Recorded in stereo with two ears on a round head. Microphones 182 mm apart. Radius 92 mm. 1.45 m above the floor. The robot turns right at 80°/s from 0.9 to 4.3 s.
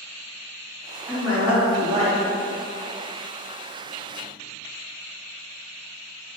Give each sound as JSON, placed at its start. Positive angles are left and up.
{"t": 1.1, "sound": "a woman speaking", "azimuth_deg": 5, "distance_m": 2.0}